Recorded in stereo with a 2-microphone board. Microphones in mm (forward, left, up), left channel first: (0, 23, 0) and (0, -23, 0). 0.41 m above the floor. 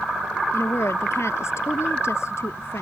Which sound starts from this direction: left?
A woman speaking, at 0.5 s.